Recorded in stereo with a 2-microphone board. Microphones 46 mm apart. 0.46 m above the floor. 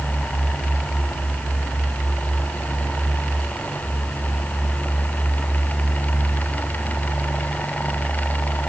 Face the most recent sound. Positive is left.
No sound to turn to.